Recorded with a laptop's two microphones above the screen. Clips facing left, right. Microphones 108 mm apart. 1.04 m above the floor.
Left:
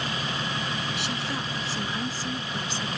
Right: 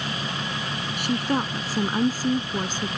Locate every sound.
1.0 s a woman speaking: 50° right (ahead or behind)